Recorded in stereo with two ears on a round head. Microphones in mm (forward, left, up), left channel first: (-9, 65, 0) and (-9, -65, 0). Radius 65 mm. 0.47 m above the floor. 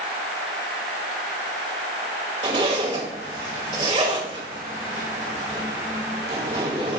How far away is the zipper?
About 2.0 m.